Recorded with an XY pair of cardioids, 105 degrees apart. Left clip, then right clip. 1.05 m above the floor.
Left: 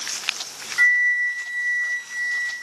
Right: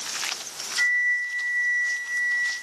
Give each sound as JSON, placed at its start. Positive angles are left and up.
{"t": 0.8, "sound": "a flute", "azimuth_deg": 35, "distance_m": 0.9}